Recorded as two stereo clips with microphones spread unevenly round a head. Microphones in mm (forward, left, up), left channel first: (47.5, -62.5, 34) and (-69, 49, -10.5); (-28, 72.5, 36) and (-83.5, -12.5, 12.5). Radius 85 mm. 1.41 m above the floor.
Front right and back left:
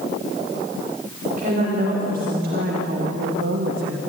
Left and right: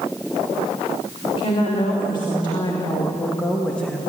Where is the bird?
No bird in this recording.